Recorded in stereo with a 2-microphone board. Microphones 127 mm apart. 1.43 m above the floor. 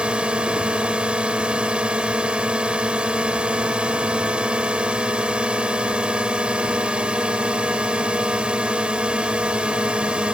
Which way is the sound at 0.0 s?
10° right (ahead or behind).